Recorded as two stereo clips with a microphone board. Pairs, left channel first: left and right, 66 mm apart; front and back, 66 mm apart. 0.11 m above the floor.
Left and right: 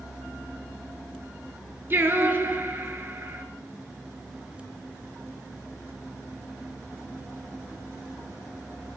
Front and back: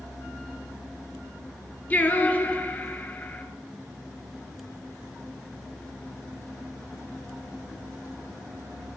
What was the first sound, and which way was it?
Singing, 55° right.